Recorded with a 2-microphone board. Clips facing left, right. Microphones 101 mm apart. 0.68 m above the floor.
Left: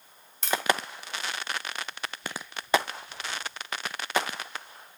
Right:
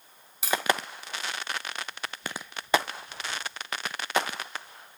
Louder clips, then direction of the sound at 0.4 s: Even; 5° right (ahead or behind).